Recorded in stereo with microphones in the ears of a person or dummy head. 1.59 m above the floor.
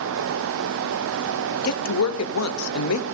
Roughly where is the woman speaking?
Left.